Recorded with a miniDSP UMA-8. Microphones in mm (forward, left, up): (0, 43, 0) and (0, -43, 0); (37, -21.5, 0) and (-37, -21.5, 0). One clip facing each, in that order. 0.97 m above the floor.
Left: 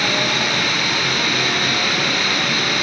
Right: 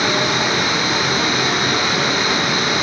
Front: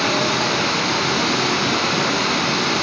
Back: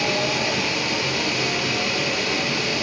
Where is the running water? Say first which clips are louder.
Right 3 dB, front 4 dB; 20° right, 6.5 m.